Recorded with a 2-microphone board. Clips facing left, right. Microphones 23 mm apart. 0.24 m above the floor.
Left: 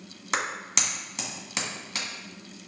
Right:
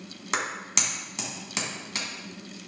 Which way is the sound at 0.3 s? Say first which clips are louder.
Even; 5° left (ahead or behind).